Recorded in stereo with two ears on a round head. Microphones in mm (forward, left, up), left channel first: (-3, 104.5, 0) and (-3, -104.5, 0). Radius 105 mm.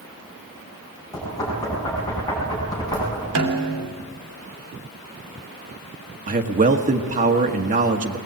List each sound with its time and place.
1.1 s knocking: 15° left (ahead or behind), 6.5 m
3.4 s a snare drum: 75° right (ahead or behind), 2.5 m
6.3 s a man speaking: 35° right (ahead or behind), 1.3 m